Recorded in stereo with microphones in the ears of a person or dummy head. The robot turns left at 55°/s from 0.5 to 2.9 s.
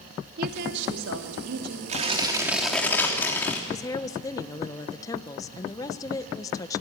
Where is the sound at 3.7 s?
20° left (ahead or behind), 1.2 m.